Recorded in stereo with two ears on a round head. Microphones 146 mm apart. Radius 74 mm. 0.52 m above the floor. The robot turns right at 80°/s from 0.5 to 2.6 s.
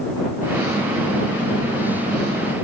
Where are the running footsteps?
I don't hear running footsteps.